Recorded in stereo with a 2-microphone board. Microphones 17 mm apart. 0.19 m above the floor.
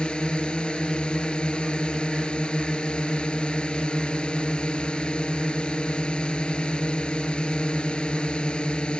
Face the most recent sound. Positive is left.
turn(degrees=65)  # may be behind; listen again after turning